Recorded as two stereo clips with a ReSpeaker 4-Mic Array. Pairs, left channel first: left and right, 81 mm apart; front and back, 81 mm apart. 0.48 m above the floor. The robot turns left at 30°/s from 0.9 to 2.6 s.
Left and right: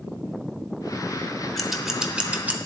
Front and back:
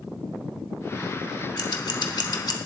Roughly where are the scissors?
Ahead.